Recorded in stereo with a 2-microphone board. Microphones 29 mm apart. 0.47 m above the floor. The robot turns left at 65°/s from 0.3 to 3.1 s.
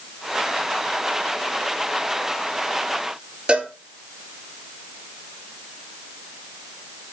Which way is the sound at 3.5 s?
40° right (ahead or behind).